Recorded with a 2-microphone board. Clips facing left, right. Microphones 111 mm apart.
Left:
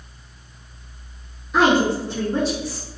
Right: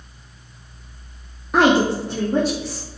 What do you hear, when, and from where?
1.5 s a woman speaking: 65° right (ahead or behind), 0.6 m; by 2.9 s 70° right (ahead or behind), 1.6 m